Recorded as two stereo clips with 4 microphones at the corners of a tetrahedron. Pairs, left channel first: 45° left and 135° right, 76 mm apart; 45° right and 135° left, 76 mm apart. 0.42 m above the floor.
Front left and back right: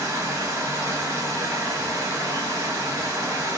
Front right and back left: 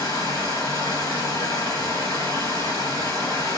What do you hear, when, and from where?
0.0 s running water: 85° right, 1.5 m